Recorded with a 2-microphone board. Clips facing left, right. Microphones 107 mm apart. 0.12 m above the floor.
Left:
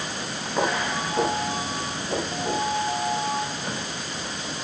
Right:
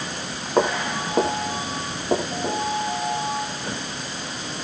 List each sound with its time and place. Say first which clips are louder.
0.6 s footsteps: right 4 dB; 50° right (ahead or behind), 8 m; by 2.6 s 45° right (ahead or behind), 7 m